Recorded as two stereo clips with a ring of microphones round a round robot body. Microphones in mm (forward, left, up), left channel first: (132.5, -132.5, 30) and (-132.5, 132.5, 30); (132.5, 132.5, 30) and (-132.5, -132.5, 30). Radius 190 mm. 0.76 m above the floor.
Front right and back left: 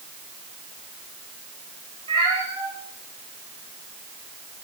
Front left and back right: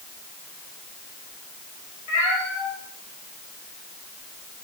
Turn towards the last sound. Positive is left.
turn(degrees=40)